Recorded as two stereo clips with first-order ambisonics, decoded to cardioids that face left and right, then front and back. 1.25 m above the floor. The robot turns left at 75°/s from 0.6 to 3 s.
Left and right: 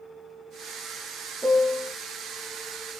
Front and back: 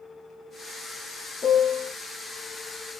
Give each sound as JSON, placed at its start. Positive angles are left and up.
{"t": 1.4, "sound": "a piano", "azimuth_deg": -5, "distance_m": 0.7}